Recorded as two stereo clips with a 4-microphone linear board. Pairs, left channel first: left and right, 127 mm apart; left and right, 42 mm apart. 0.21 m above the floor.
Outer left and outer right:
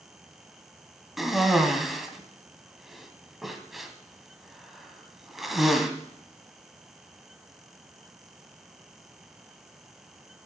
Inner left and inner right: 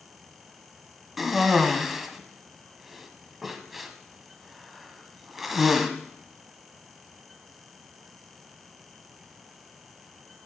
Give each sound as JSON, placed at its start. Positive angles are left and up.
{"t": 1.2, "sound": "a cough", "side_deg": 0, "distance_m": 1.6}